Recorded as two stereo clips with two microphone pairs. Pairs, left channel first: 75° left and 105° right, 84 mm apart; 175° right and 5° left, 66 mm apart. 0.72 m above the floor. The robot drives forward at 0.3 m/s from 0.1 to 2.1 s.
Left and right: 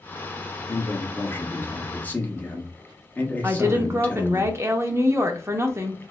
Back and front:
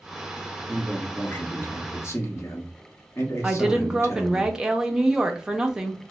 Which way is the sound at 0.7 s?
120° left.